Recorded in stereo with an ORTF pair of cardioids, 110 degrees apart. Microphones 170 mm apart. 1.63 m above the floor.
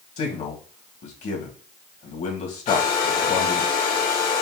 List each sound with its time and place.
0.2 s a man speaking: 45° left, 1.9 m
2.7 s a hair dryer: 55° left, 1.9 m